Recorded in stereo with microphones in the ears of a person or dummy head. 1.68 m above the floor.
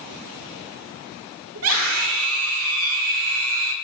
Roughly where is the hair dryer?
I don't hear a hair dryer.